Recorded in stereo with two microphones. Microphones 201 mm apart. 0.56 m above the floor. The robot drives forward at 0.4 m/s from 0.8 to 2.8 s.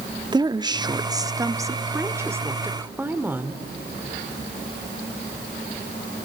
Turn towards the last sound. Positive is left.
turn(degrees=-10)  # may be behind; listen again after turning